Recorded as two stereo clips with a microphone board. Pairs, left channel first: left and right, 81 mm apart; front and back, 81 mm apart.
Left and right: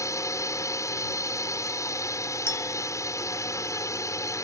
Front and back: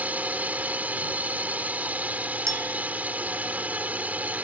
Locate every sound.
0.0 s a drone: 115° left
2.5 s a clink: 140° left